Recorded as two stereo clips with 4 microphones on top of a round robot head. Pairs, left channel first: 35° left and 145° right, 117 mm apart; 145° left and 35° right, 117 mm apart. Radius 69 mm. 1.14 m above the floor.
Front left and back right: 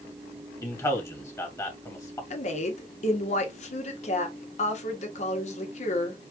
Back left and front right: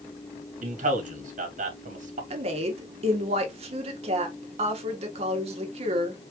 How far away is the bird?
No bird in this recording.